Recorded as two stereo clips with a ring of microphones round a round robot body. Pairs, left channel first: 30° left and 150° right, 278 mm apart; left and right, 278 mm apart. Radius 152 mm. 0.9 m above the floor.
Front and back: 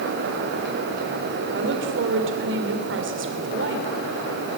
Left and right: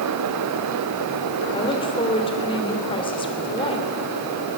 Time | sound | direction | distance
1.5 | a woman speaking | 160° left | 3.5 m